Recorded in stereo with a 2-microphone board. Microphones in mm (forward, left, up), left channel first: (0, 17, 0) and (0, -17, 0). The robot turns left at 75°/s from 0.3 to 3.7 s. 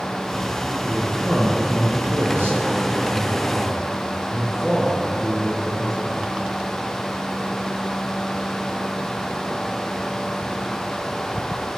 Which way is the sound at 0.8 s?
25° left.